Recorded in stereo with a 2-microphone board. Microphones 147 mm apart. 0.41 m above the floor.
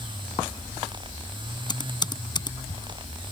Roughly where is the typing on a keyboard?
Left.